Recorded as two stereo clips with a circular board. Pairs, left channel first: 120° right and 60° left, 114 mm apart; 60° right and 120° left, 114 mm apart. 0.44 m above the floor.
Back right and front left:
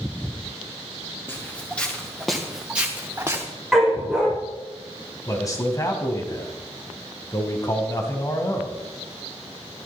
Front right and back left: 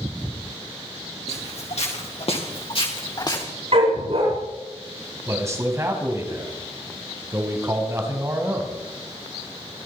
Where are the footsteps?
45° right, 4.5 m; by 3.5 s 5° right, 3.5 m.